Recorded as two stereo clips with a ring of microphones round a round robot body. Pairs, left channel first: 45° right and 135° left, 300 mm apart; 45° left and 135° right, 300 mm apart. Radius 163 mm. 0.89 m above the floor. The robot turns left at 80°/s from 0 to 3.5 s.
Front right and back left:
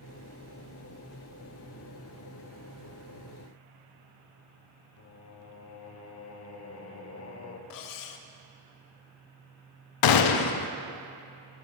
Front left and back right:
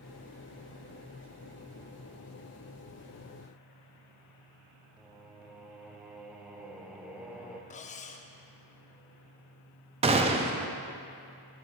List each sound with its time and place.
5.0 s singing: 50° right, 0.8 m
7.7 s cutlery clinking: 20° right, 0.6 m
10.0 s a gunshot: 65° right, 0.5 m